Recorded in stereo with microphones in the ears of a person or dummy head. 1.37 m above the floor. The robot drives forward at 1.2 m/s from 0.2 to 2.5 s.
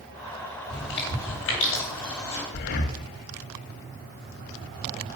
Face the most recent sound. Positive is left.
turn(degrees=50)  # may be behind; listen again after turning